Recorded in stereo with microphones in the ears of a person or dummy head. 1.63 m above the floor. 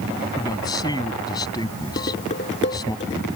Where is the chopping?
I don't hear chopping.